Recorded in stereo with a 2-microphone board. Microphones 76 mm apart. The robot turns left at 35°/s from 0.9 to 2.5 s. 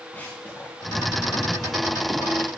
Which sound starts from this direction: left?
Running footsteps, at 0.1 s.